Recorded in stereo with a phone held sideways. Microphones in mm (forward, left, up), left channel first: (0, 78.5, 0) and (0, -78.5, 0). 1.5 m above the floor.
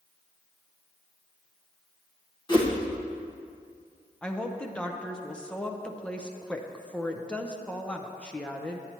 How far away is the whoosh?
About 1.2 m.